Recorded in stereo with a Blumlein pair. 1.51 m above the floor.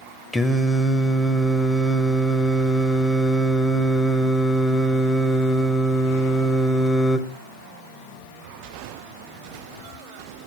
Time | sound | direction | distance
0.3 | singing | 5° left | 0.9 m